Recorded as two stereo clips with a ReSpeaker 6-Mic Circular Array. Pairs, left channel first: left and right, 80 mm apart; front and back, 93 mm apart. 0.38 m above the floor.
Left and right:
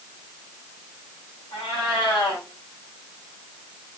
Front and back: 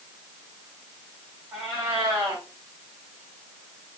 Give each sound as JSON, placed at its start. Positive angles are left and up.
{"t": 1.5, "sound": "a cat meowing", "azimuth_deg": 105, "distance_m": 6.0}